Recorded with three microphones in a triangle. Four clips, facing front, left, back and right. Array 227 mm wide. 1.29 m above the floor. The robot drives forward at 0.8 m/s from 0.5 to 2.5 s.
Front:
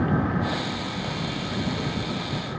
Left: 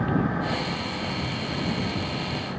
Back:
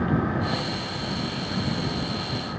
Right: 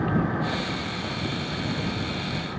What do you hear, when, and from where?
Only background noise.